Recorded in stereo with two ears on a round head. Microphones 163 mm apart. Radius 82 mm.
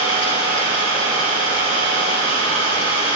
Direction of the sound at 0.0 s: 35° left (ahead or behind).